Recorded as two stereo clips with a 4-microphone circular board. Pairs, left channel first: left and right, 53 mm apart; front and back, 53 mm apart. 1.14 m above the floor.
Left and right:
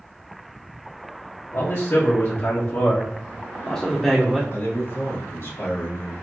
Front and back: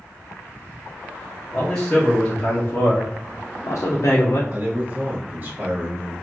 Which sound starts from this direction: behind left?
A man speaking, at 4.5 s.